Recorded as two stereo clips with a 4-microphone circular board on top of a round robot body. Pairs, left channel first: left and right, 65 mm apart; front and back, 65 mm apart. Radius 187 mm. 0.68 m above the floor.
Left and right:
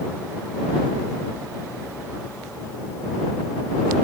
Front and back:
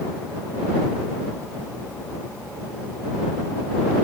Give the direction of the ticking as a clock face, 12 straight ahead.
No ticking in this recording.